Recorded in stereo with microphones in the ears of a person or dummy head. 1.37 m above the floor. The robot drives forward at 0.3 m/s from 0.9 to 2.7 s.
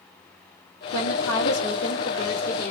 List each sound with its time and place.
0.9 s a woman speaking: 70° left (ahead or behind), 1.3 m; by 2.7 s 50° left (ahead or behind), 1.6 m